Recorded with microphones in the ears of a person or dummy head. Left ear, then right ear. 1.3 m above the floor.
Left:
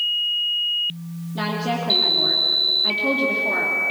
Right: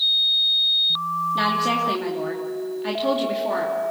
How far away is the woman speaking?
About 2.5 m.